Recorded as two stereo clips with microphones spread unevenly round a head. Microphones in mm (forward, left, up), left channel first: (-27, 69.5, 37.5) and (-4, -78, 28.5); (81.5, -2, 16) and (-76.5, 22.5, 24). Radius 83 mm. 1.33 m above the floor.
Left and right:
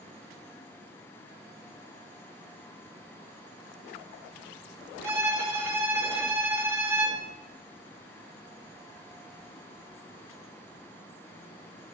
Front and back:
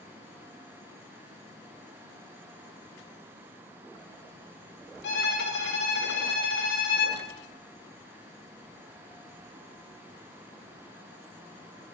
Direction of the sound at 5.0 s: 10° right.